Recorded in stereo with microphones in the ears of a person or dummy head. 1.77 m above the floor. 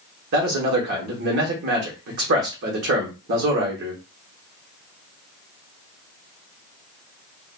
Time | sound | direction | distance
0.3 | a man speaking | 60° right (ahead or behind) | 1.0 m